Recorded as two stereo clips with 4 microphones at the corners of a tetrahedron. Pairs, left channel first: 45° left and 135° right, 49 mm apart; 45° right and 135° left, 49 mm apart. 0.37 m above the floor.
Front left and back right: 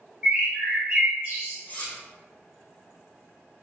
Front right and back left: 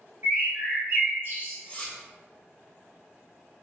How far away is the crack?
I don't hear a crack.